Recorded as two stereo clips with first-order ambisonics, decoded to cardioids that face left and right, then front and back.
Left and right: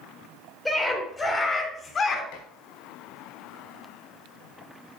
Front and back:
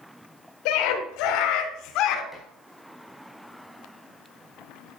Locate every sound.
0.7 s a scream: 10° left, 4 m; by 2.2 s 30° left, 3.5 m
2.3 s dishes clattering: 85° left, 4 m